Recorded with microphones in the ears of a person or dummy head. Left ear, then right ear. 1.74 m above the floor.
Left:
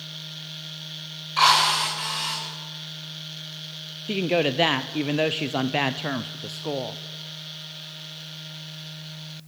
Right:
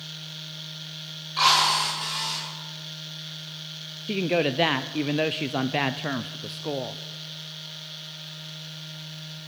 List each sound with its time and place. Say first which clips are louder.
1.4 s a drill: left 2 dB; 25° left (ahead or behind), 8.5 m
4.1 s a woman speaking: left 1 dB; centre (ahead or behind), 0.7 m